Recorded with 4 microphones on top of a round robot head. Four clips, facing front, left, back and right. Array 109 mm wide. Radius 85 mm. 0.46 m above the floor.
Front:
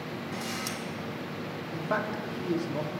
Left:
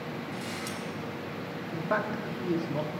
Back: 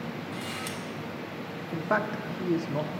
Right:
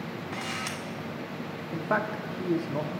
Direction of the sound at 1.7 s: 150° right.